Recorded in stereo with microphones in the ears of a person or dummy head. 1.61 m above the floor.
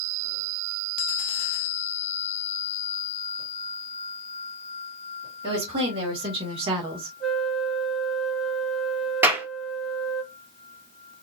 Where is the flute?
5° right (ahead or behind), 1.3 m.